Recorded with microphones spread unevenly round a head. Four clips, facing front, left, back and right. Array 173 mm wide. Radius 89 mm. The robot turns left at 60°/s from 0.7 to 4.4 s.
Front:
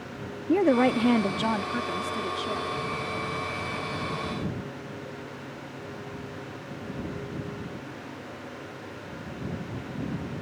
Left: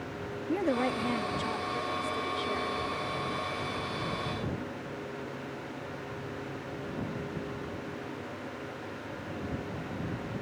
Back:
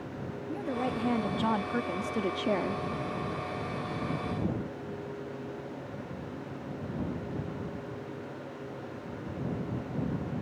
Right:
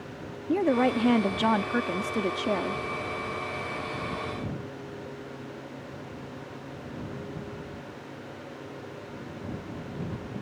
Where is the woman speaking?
25° right; by 2.8 s 150° right.